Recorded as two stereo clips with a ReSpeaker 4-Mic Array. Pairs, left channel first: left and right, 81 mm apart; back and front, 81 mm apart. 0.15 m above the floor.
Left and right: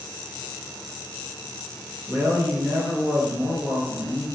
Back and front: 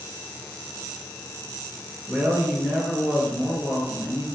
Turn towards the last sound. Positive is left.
turn(degrees=-70)